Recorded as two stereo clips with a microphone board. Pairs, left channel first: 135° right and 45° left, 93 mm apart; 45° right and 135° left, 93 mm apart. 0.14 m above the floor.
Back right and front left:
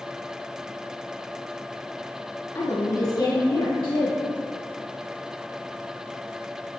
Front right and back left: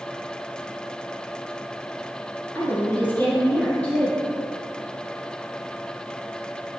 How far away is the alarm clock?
No alarm clock in this recording.